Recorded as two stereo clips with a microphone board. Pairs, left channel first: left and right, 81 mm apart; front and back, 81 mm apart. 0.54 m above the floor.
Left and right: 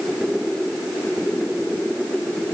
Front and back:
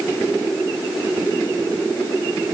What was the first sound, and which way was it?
Only background noise.